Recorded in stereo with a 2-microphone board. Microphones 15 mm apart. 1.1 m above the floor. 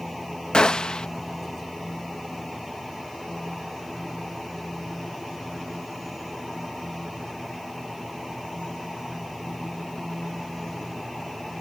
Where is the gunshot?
60° left (ahead or behind).